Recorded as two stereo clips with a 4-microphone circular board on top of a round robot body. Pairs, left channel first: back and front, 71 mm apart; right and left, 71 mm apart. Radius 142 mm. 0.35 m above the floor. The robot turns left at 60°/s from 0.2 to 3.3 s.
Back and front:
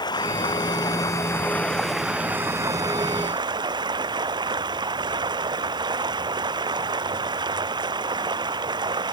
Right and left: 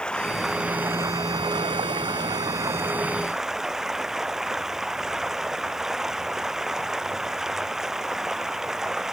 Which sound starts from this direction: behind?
Running water, at 0.0 s.